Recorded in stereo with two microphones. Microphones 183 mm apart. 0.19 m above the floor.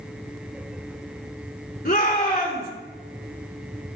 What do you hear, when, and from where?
1.9 s a shout: 55° left (ahead or behind), 2 m